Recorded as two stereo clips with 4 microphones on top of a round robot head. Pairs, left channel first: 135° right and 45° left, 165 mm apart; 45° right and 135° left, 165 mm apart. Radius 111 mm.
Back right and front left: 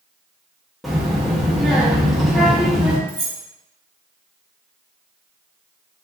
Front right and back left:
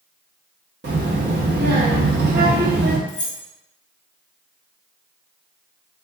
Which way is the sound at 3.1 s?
5° right.